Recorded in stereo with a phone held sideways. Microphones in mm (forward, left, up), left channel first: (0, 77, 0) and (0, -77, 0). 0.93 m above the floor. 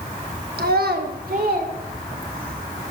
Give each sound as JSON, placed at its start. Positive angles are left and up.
{"t": 0.6, "sound": "a child speaking", "side_deg": -85, "distance_m": 0.9}